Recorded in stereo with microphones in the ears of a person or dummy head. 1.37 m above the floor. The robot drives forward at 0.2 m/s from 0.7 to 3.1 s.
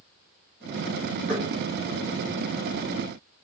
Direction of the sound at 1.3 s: 70° right (ahead or behind).